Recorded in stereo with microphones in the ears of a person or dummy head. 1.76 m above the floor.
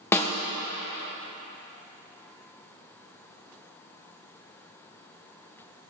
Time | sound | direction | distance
0.1 | a snare drum | 10° left (ahead or behind) | 1.1 m